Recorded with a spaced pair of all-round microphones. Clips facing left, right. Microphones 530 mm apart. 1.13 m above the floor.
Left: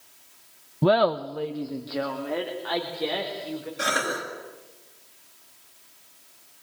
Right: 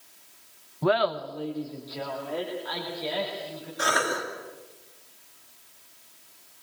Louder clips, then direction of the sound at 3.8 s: Right 4 dB; 50° left (ahead or behind).